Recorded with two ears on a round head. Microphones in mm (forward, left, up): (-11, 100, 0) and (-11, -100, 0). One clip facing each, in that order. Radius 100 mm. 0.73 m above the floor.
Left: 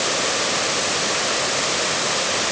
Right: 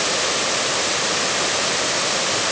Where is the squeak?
No squeak in this recording.